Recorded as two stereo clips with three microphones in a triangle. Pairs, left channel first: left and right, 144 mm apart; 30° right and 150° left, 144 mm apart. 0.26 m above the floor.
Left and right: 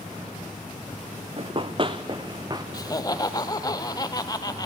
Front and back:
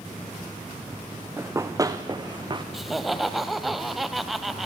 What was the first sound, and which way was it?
Running footsteps, 135° right.